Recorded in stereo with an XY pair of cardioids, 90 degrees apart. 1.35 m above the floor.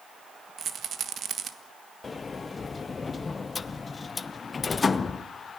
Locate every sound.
0.6 s a rattle: 60° right, 1.6 m
2.0 s a sliding door: 35° left, 0.9 m